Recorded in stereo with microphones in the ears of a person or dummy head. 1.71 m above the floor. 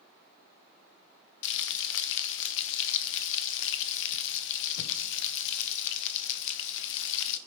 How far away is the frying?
About 0.8 m.